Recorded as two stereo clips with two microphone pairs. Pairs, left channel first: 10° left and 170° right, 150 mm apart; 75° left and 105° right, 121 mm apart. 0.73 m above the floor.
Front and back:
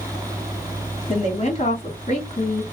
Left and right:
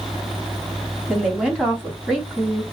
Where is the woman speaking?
25° right, 1.8 m.